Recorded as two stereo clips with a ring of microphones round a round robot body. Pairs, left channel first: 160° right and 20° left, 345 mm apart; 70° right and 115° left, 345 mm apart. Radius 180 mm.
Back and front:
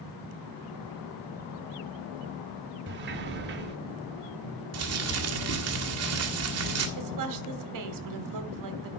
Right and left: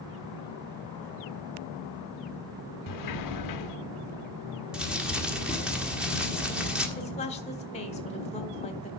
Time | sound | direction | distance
2.9 | a sliding door | 35° right | 0.8 m
4.7 | crumpling | 25° left | 1.5 m
7.0 | a woman speaking | straight ahead | 1.4 m